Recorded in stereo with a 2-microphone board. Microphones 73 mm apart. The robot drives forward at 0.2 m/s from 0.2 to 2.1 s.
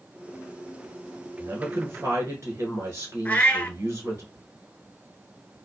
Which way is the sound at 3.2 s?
25° left (ahead or behind).